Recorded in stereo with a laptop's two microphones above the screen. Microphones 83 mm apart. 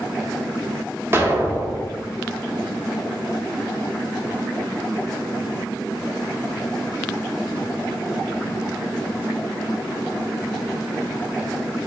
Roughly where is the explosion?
Right.